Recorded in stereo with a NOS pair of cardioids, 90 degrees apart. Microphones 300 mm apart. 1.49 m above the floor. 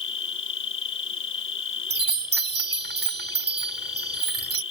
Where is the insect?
40° left.